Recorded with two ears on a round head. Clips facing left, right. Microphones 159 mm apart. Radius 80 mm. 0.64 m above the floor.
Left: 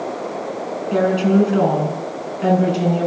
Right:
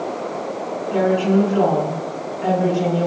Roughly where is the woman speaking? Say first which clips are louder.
Left 1 dB; left.